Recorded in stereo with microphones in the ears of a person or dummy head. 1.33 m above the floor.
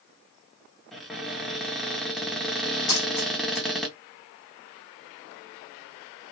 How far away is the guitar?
No guitar in this recording.